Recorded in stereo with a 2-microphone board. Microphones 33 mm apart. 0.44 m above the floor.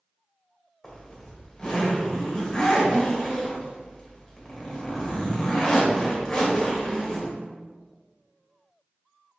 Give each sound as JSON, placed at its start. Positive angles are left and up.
{"t": 0.8, "sound": "a zipper", "side_deg": 15, "distance_m": 1.4}